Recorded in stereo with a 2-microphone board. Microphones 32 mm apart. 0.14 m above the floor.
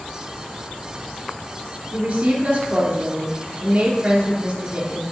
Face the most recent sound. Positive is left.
turn(degrees=-40)  # may be behind; listen again after turning